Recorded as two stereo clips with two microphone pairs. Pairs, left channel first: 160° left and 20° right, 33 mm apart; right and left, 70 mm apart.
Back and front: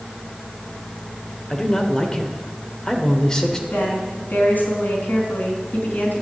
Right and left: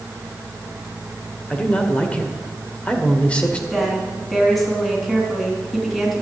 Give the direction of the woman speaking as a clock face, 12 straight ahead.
6 o'clock.